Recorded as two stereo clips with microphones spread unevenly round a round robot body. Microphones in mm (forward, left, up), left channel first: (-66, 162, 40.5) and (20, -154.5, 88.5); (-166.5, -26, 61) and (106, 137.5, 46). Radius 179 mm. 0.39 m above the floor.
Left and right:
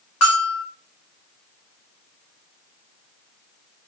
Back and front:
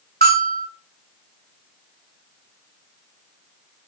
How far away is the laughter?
I don't hear laughter.